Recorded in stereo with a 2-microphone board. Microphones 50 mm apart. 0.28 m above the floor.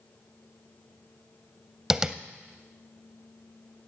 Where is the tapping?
15° right (ahead or behind), 0.5 m.